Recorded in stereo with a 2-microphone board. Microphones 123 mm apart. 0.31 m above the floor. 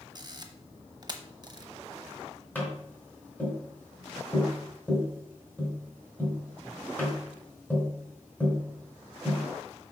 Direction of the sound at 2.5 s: 15° left (ahead or behind).